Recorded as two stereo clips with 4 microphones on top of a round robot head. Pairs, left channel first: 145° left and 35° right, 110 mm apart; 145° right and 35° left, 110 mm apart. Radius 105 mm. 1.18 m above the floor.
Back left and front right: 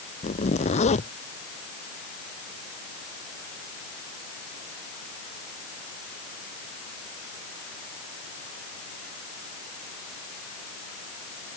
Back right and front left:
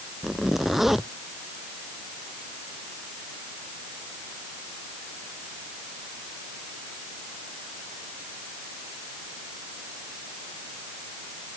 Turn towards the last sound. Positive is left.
turn(degrees=125)